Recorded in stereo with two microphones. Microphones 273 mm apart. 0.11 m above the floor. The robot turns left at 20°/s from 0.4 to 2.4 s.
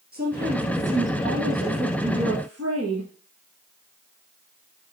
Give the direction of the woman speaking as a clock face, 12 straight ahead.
1 o'clock.